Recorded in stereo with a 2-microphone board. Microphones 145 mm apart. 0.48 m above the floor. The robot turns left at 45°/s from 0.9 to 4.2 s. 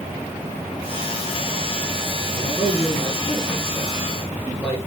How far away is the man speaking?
About 5 m.